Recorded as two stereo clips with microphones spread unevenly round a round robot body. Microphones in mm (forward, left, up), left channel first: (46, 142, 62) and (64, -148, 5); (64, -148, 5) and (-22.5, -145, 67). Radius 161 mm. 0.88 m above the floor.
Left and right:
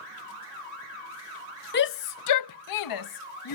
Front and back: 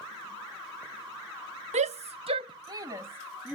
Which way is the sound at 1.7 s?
155° left.